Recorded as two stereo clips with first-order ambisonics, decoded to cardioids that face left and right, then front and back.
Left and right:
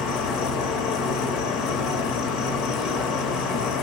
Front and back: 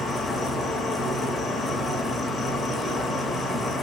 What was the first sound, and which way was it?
An insect, 80° left.